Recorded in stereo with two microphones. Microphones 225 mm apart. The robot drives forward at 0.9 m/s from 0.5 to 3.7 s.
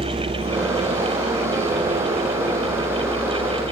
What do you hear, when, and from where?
0.0 s a vehicle: 30° right (ahead or behind); by 3.7 s 75° right (ahead or behind)